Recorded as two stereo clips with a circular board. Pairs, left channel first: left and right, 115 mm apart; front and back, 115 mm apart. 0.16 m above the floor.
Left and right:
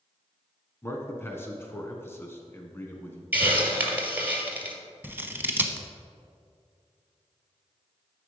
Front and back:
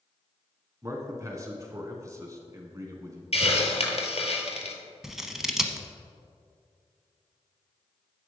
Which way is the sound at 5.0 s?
105° right.